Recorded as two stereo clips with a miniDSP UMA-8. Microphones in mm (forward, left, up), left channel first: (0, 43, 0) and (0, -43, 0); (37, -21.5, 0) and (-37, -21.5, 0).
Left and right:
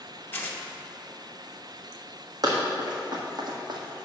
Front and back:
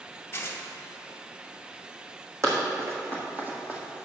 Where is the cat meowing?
I don't hear a cat meowing.